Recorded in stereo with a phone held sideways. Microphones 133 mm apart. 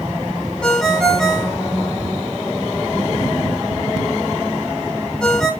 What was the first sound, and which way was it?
A ringtone, 5° left (ahead or behind).